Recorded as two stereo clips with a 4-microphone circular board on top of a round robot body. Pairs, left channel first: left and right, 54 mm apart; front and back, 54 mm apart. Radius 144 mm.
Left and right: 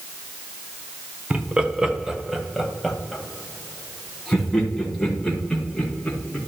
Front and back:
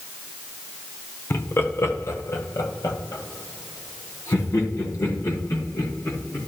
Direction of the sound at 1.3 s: 30° right.